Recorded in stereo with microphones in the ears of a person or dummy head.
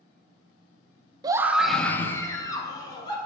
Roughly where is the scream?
Right.